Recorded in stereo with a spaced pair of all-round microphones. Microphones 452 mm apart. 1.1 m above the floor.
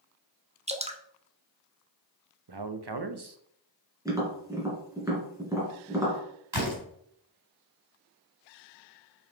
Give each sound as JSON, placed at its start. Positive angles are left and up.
{"t": 0.7, "sound": "dripping", "side_deg": -15, "distance_m": 0.8}
{"t": 2.5, "sound": "a man speaking", "side_deg": -60, "distance_m": 0.8}
{"t": 4.0, "sound": "tapping", "side_deg": -5, "distance_m": 3.0}
{"t": 6.5, "sound": "a door slam", "side_deg": -70, "distance_m": 4.0}